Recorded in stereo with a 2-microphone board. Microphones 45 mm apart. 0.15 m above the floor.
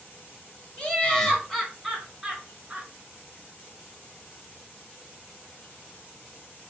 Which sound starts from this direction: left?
Laughter, at 0.8 s.